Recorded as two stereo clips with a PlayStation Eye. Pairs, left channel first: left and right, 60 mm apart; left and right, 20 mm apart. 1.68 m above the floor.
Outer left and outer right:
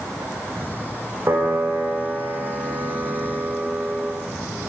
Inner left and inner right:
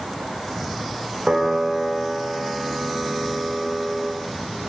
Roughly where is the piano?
Right.